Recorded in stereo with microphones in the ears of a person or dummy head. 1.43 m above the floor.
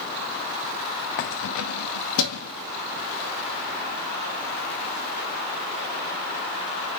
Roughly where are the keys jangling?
Left.